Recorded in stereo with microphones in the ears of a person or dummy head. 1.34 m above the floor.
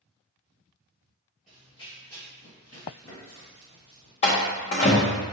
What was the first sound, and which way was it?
Running footsteps, 5° left (ahead or behind).